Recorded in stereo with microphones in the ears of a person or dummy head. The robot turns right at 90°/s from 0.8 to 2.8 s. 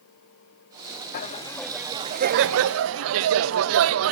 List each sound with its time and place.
1.1 s laughter: 125° left, 0.7 m; by 4.1 s 85° right, 0.7 m